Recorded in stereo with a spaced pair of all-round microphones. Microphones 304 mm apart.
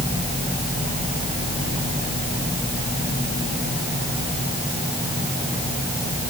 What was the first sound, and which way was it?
Only background noise.